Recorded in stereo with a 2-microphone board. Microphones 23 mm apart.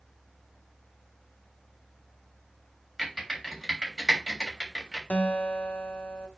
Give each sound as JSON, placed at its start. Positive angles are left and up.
{"t": 3.0, "sound": "typing on a keyboard", "side_deg": 5, "distance_m": 3.5}
{"t": 5.1, "sound": "a guitar", "side_deg": 80, "distance_m": 1.0}